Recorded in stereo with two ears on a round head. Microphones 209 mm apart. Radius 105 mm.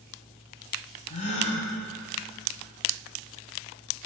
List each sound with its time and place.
1.1 s a gasp: 30° left (ahead or behind), 1.4 m